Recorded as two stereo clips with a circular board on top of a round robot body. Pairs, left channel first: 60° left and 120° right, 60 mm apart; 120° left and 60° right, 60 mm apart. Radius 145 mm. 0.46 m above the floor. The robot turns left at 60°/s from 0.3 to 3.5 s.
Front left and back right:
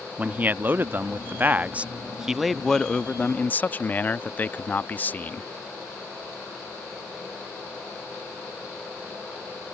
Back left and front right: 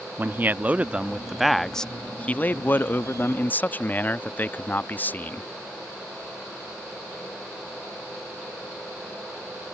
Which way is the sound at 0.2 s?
80° right.